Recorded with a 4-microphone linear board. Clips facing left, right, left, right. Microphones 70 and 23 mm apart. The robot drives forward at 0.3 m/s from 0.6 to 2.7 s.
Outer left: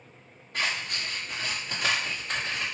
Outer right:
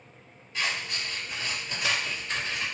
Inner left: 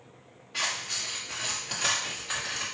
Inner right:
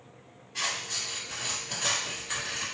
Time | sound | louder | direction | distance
0.5 | scissors | outer left 1 dB, inner left 1 dB | 60° left (ahead or behind) | 1.5 m